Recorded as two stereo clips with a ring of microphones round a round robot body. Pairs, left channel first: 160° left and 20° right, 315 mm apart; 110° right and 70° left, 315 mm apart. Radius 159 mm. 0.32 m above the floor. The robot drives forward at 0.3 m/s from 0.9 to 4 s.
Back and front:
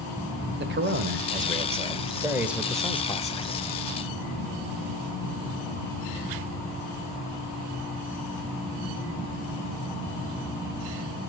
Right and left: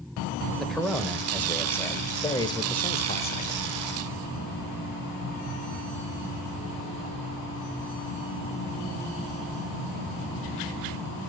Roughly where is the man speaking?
Ahead right.